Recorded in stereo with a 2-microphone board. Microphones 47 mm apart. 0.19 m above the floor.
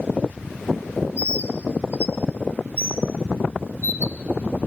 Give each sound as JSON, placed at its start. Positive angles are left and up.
{"t": 1.2, "sound": "a bird", "side_deg": 35, "distance_m": 0.6}